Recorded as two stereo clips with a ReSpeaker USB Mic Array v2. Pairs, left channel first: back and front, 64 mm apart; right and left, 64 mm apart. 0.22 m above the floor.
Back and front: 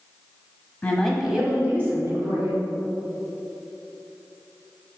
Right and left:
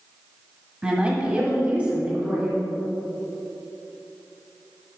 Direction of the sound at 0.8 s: 145° left.